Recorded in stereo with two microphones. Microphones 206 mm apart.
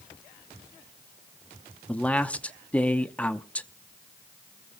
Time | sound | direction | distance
1.9 | a man speaking | 5° left (ahead or behind) | 0.7 m